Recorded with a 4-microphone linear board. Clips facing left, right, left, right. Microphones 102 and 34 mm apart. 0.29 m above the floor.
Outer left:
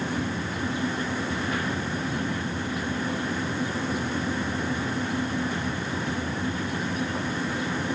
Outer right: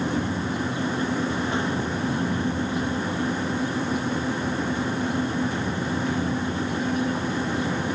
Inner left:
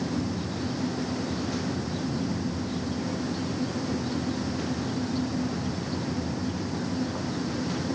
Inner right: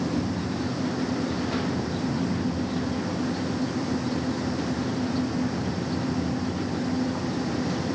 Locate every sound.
Only background noise.